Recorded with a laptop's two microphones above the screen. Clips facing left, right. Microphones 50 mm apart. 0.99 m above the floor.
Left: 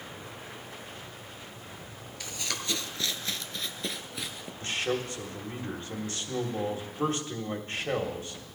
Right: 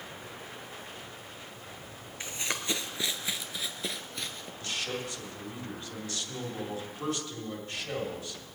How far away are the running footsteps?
About 1.1 m.